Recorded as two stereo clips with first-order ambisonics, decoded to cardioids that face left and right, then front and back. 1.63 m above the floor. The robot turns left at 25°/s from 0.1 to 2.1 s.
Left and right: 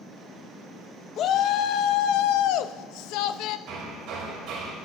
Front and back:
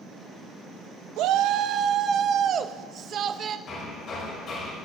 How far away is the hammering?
About 3.5 m.